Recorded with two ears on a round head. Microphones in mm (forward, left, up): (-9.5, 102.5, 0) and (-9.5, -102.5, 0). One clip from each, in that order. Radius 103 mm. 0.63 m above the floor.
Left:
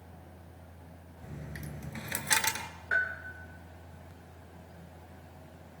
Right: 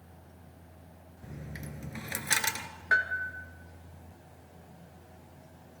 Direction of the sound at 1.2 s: 5° left (ahead or behind).